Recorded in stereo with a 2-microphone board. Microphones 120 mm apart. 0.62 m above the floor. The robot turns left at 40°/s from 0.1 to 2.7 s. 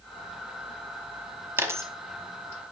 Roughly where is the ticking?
I don't hear ticking.